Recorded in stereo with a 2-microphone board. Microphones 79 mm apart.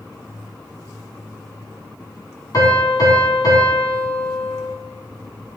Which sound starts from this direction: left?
A piano, at 2.5 s.